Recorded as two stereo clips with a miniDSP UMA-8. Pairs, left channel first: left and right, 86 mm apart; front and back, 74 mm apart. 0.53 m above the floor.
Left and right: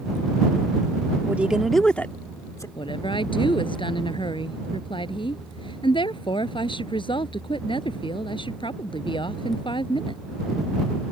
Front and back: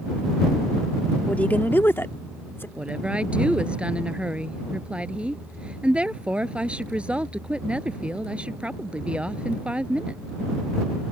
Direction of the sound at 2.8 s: 105° left.